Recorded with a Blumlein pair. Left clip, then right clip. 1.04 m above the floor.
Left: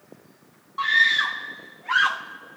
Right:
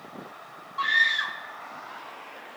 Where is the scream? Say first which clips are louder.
Left 4 dB; 5° left; by 2.6 s 60° left.